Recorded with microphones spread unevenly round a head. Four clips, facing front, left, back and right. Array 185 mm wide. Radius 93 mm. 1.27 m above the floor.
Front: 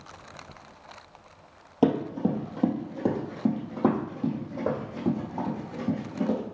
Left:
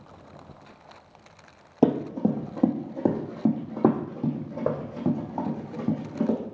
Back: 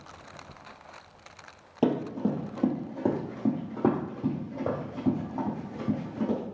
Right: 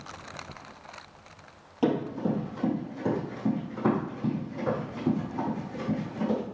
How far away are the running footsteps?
About 1.8 m.